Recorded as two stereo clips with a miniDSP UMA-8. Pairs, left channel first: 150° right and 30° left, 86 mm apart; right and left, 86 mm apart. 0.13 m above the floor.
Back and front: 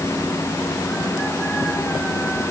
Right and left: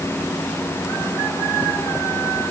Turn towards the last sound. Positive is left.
No sound to turn to.